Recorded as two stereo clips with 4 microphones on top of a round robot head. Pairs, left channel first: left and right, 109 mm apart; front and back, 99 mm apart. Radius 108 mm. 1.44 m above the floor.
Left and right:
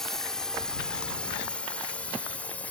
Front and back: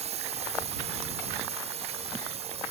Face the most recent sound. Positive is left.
turn(degrees=170)